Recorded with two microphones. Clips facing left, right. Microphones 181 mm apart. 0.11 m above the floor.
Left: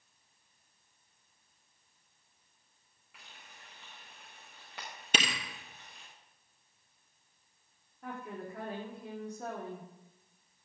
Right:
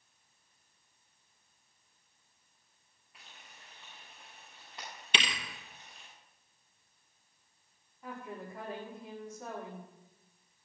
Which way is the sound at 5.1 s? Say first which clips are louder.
Left 3 dB; 45° left (ahead or behind).